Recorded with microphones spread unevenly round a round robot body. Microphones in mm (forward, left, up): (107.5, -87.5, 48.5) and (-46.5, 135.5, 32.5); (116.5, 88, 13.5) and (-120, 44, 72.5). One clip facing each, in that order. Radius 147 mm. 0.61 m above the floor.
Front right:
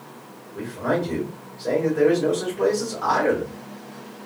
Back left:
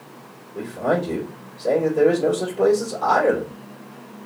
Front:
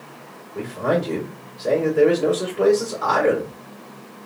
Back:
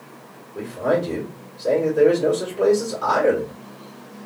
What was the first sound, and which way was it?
A man speaking, 70° left.